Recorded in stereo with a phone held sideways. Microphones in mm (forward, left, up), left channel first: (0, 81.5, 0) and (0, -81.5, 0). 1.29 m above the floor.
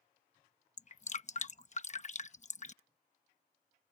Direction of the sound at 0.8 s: 45° left (ahead or behind).